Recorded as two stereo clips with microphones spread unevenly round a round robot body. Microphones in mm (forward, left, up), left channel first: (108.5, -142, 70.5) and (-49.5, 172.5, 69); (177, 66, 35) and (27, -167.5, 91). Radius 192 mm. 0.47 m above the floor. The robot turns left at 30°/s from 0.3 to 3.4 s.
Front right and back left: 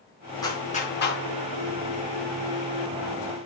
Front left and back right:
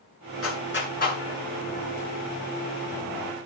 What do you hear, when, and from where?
0.4 s a clap: 20° left, 7 m; by 1.2 s 5° right, 7 m